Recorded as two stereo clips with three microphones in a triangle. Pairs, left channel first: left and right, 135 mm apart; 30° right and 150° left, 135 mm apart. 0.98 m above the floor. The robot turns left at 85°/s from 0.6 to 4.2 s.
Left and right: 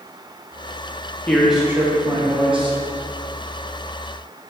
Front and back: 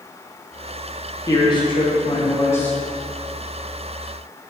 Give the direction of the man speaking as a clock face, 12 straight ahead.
11 o'clock.